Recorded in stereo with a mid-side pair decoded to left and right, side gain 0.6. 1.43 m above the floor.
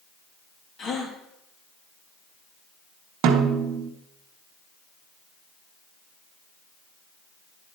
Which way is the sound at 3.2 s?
65° right.